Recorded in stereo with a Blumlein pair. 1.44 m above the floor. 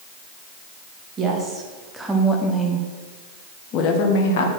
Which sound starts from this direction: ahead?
A woman speaking, at 1.2 s.